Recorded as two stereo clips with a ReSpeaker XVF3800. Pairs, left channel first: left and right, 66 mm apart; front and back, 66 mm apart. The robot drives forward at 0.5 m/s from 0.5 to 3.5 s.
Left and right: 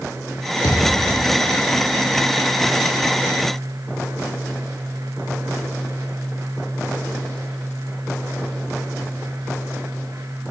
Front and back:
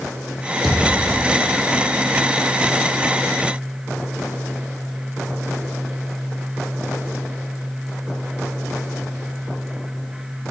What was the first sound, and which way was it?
A thud, 90° left.